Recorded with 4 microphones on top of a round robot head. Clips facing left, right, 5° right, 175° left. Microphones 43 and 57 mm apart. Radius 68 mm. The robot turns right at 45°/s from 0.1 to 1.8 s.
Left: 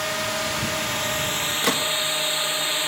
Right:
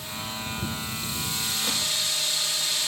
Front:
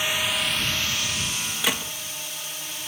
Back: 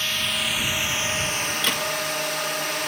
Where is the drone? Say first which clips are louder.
Left 9 dB, front 1 dB; 75° left; by 2.9 s 150° left.